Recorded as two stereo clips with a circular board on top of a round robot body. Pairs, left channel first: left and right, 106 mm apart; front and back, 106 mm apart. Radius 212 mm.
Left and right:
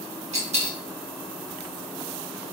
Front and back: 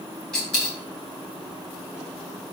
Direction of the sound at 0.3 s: 85° right.